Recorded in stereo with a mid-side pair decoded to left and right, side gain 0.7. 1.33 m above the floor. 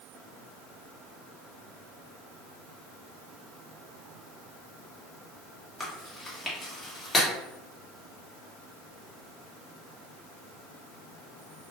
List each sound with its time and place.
5.8 s chewing: 15° left, 1.3 m